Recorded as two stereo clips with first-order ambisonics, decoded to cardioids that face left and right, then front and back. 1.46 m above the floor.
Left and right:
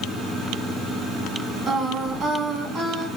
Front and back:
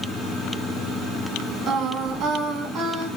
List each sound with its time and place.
1.7 s singing: 150° right, 2 m